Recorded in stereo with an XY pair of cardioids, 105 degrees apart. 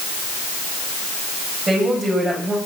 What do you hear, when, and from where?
1.7 s a woman speaking: 25° right, 7.5 m